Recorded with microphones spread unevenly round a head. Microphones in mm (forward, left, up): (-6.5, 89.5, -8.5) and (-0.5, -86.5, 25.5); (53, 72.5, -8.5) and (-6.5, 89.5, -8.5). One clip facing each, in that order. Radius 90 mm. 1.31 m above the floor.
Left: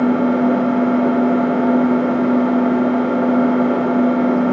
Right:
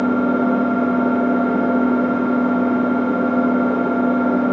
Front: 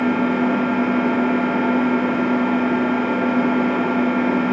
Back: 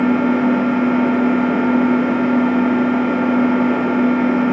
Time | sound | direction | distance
0.0 | an engine running | 80° left | 0.8 m